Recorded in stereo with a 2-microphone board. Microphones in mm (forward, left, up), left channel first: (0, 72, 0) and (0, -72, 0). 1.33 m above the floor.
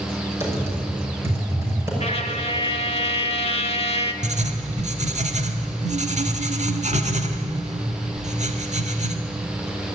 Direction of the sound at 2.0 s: 45° left (ahead or behind).